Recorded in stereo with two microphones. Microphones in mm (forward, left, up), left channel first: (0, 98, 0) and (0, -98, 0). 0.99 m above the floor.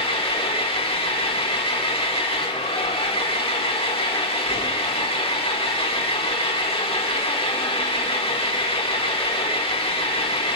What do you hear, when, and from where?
0.0 s an engine running: 30° left (ahead or behind), 1.3 m